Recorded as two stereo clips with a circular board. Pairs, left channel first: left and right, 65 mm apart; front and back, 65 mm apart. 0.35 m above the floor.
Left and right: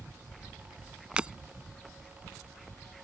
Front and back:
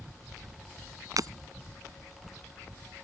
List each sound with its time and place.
1.2 s breaking glass: 165° right